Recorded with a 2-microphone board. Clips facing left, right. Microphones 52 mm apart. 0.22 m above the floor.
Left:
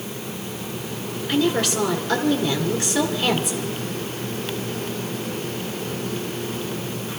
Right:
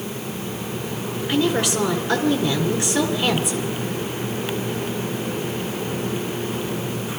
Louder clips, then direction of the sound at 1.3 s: Even; 15° right (ahead or behind).